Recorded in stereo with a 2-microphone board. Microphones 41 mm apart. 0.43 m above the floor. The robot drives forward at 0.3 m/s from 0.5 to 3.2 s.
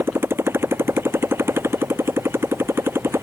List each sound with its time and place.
0.0 s a motorcycle: 85° right